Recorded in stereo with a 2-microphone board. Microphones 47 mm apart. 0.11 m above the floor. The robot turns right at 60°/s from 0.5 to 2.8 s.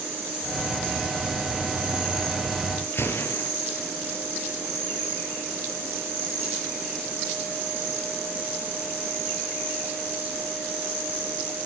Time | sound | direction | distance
2.9 | a gunshot | 55° left (ahead or behind) | 2 m